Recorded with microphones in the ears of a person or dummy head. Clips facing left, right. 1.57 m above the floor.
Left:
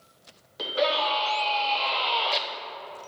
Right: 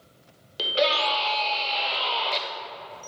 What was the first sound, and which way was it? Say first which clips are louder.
A scream: right 1 dB; 40° right (ahead or behind).